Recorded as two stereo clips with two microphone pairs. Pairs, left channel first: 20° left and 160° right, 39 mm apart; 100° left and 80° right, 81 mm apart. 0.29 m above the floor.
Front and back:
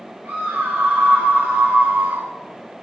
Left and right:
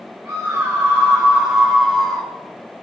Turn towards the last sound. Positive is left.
turn(degrees=180)